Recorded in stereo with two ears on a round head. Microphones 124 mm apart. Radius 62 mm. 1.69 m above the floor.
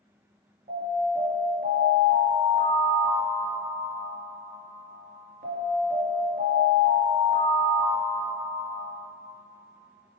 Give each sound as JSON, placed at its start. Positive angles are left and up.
{"t": 0.7, "sound": "an alarm", "side_deg": -60, "distance_m": 3.0}